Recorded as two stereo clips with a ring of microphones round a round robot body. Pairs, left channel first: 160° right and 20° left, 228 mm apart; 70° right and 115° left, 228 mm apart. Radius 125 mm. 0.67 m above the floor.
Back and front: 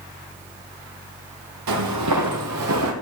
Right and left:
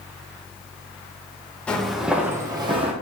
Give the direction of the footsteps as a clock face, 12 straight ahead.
11 o'clock.